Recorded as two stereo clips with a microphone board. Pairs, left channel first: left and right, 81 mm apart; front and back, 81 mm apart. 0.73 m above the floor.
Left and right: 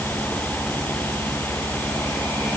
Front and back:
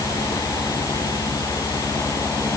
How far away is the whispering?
I don't hear whispering.